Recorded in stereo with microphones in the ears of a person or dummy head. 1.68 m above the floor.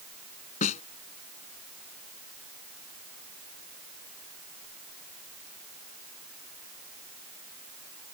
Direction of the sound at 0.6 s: 40° left (ahead or behind).